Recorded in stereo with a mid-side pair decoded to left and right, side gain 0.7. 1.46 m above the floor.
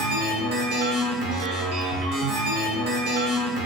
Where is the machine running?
65° right, 0.8 m.